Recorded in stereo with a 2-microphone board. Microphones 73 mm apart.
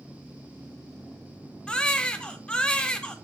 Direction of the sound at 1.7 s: 15° left (ahead or behind).